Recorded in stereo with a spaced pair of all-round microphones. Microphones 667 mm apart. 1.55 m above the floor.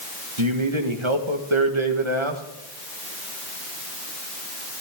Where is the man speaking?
45° right (ahead or behind), 1.8 m.